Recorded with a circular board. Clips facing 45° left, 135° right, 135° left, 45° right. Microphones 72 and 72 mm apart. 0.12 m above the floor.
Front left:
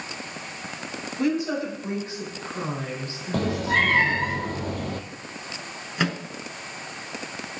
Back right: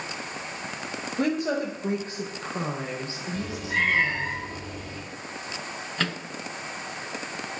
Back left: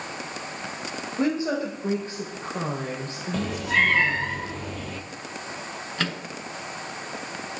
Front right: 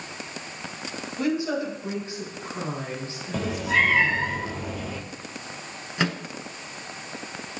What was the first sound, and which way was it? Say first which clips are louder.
A woman speaking: front left 1 dB, back left 1 dB; 165° right.